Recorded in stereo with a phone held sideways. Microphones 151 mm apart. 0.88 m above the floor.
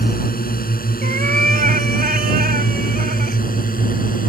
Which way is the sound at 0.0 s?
75° left (ahead or behind).